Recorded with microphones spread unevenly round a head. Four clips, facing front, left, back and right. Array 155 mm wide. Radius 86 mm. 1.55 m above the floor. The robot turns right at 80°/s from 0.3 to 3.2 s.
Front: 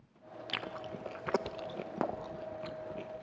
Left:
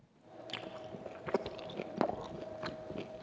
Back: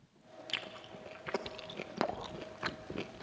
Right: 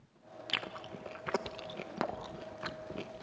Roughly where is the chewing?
Ahead right.